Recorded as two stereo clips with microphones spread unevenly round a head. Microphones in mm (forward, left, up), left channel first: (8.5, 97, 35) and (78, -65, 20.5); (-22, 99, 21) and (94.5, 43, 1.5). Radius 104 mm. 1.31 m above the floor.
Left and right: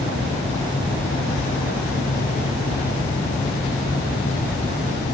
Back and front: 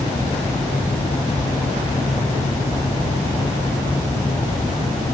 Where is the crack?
No crack in this recording.